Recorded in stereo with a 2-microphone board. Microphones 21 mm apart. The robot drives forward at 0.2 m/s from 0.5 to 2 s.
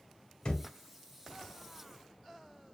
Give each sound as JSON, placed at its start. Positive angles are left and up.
{"t": 0.5, "sound": "a thud", "side_deg": 50, "distance_m": 0.8}